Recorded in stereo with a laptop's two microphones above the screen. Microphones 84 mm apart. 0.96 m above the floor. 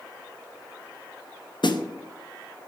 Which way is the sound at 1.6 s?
60° left (ahead or behind).